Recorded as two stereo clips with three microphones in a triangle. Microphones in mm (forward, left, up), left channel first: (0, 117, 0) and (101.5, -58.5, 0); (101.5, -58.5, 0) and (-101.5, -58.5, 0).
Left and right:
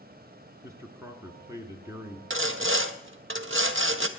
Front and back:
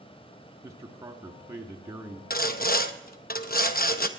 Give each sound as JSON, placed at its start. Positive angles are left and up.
{"t": 0.6, "sound": "a man speaking", "azimuth_deg": -120, "distance_m": 1.2}
{"t": 2.3, "sound": "sawing", "azimuth_deg": -45, "distance_m": 0.7}